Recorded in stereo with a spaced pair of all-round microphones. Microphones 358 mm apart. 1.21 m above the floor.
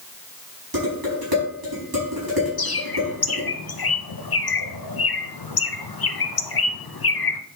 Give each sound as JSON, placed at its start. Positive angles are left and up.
{"t": 0.7, "sound": "dishes clattering", "side_deg": -80, "distance_m": 5.5}
{"t": 2.6, "sound": "a bird", "side_deg": 85, "distance_m": 0.8}